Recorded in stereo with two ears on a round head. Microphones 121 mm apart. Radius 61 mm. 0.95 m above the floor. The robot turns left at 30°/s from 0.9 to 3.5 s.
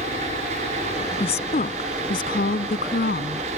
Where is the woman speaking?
135° left; by 3.5 s 65° left.